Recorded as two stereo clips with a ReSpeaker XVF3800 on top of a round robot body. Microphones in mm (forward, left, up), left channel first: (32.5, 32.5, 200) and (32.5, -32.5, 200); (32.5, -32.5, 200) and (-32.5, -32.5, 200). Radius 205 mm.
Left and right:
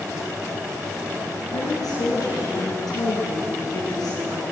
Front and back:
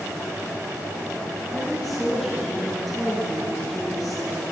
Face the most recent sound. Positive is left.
turn(degrees=90)